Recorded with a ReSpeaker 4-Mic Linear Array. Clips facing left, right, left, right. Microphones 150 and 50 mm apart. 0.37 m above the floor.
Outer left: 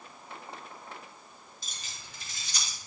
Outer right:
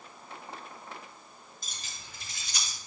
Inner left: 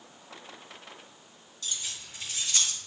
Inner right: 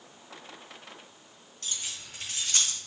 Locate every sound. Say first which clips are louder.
1.6 s keys jangling: even, even; 50° right (ahead or behind), 2.5 m; by 2.8 s 60° right (ahead or behind), 4 m